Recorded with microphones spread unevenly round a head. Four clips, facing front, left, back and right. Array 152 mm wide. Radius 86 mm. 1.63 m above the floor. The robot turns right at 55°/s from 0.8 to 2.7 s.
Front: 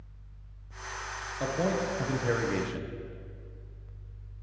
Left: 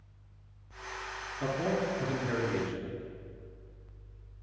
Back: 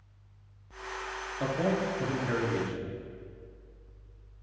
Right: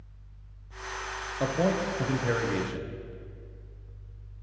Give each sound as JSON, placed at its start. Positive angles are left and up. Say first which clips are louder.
{"t": 1.4, "sound": "a man speaking", "louder": "right 4 dB, even", "azimuth_deg": -100, "distance_m": 0.8}